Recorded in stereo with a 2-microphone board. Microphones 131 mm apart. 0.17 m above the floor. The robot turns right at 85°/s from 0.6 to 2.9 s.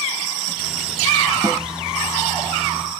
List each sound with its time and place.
1.4 s a snare drum: 35° right (ahead or behind), 1.0 m